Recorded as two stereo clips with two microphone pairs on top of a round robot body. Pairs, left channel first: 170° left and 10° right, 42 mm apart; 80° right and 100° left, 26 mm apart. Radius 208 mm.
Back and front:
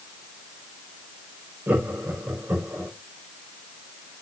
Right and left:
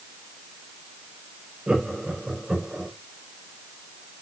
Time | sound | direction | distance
1.7 | laughter | 35° left | 5 m